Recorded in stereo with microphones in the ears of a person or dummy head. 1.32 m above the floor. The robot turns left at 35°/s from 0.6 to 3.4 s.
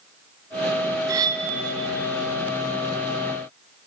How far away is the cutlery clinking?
About 0.7 m.